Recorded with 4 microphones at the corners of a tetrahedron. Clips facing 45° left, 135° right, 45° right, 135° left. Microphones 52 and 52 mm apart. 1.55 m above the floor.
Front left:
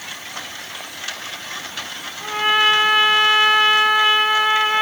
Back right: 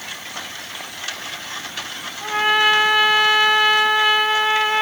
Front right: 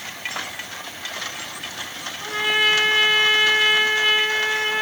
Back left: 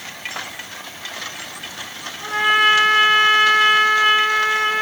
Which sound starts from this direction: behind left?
A trumpet, at 2.2 s.